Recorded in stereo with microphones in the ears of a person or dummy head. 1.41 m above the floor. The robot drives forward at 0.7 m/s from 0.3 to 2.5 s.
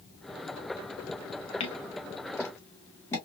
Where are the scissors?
30° left (ahead or behind), 0.6 m; by 3.2 s 15° left (ahead or behind), 1.1 m.